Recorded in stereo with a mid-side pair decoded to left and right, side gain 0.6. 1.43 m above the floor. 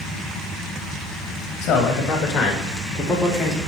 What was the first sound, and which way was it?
A man speaking, 60° left.